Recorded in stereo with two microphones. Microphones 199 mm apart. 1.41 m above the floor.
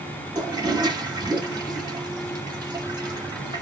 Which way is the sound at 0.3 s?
20° right (ahead or behind).